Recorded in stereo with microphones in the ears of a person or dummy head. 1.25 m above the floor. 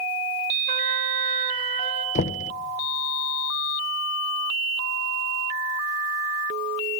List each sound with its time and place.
0.7 s a trumpet: 40° right (ahead or behind), 2.5 m
2.1 s knocking: 45° left (ahead or behind), 0.7 m